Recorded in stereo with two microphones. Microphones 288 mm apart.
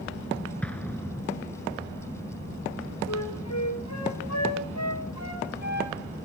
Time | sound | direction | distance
0.6 | an explosion | 5° left (ahead or behind) | 1.2 m
3.1 | a flute | 65° left (ahead or behind) | 4.5 m